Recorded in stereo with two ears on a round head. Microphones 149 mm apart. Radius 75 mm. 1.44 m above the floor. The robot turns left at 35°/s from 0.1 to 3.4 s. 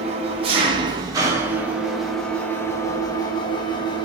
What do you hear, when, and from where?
0.0 s an engine running: 110° right, 0.8 m; by 4.1 s 135° left, 0.8 m